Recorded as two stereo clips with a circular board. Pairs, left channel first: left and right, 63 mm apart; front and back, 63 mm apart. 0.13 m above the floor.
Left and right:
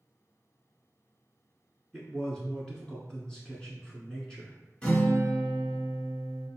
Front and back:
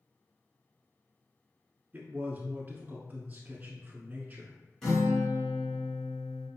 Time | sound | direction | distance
1.9 | a man speaking | 150° left | 1.3 m
4.8 | a guitar | 70° left | 1.6 m